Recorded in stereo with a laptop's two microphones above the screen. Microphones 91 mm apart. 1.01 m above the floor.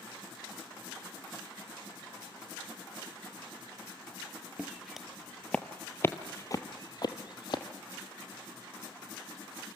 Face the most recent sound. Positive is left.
turn(degrees=60)  # may be behind; listen again after turning